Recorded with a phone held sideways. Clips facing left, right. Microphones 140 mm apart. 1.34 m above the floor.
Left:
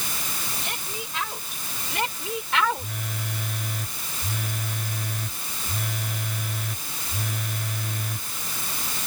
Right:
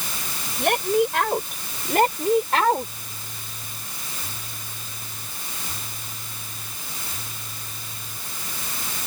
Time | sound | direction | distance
0.6 | a woman speaking | 65° right (ahead or behind) | ?
2.8 | a phone buzzing | 75° left (ahead or behind) | ?